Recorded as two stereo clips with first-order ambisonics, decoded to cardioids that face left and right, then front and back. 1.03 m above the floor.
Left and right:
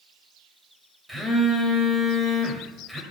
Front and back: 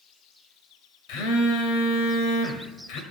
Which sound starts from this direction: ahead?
A phone buzzing, at 1.1 s.